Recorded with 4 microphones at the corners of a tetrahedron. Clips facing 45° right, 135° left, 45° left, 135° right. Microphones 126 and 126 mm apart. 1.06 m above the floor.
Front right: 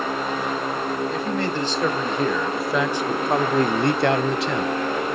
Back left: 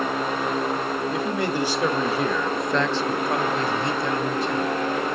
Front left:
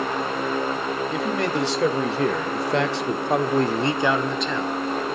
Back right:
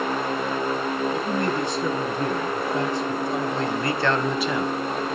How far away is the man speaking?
About 1.7 m.